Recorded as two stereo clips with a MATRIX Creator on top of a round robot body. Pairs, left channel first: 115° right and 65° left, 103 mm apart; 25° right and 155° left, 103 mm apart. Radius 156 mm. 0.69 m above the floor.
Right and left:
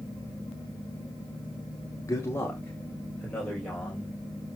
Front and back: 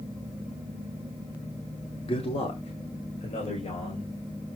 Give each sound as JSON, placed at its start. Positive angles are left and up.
{"t": 2.1, "sound": "a man speaking", "azimuth_deg": -55, "distance_m": 2.0}